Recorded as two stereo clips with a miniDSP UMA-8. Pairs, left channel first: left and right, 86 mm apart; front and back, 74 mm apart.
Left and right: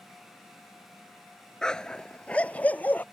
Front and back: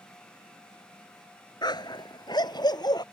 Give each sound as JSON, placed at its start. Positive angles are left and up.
{"t": 1.6, "sound": "a dog barking", "azimuth_deg": 5}